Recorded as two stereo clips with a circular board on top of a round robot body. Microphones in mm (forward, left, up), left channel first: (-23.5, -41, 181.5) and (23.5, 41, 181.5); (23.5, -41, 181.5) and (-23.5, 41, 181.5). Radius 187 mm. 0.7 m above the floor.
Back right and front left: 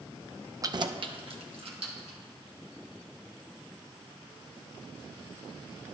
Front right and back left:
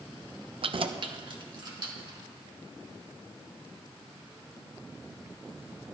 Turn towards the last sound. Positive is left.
turn(degrees=75)